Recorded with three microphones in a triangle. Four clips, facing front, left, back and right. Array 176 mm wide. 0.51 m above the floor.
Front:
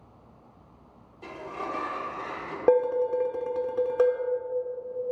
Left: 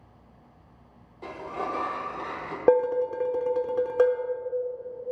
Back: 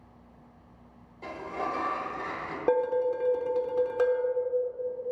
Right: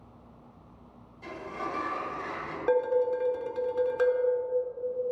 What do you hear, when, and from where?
1.2 s a sliding door: 95° left, 1.2 m
2.7 s dishes clattering: 65° left, 0.7 m